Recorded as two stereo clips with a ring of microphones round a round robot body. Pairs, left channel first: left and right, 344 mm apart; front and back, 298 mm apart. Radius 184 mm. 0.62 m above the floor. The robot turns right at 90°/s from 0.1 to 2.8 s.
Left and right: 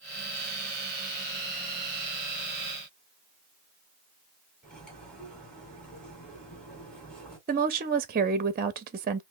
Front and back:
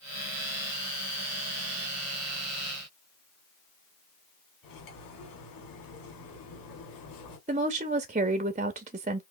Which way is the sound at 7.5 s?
135° right.